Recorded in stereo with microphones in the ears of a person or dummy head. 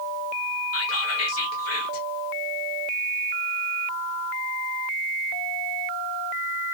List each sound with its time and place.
0.7 s whispering: 65° left (ahead or behind), 1.0 m